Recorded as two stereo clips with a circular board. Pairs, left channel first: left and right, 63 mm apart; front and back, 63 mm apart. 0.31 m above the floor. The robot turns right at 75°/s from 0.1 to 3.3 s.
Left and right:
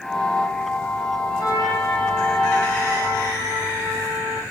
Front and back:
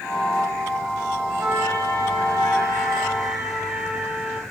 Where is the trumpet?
110° left, 6.5 m; by 4.4 s 105° right, 6.5 m.